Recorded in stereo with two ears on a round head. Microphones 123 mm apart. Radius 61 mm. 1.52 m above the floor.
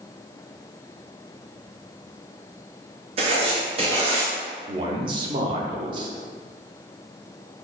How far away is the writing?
About 0.7 m.